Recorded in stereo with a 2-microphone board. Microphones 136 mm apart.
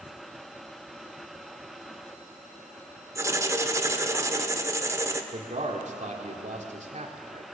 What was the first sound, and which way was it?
Writing, 20° right (ahead or behind).